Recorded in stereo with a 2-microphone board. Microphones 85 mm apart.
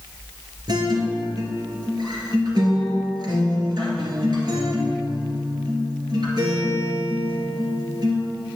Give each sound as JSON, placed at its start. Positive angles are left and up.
{"t": 0.7, "sound": "a guitar", "side_deg": -55, "distance_m": 2.5}